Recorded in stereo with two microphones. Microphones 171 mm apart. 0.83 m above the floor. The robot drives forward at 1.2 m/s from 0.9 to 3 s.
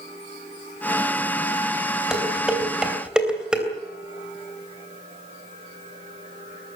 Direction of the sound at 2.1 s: 5° right (ahead or behind).